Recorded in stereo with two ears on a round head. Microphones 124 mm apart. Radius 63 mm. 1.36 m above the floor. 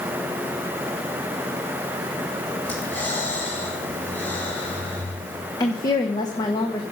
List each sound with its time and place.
2.6 s breathing: 15° left (ahead or behind), 2 m
5.6 s a woman speaking: 30° left (ahead or behind), 0.9 m